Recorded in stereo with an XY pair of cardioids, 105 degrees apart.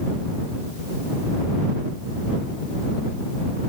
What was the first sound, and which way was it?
Only background noise.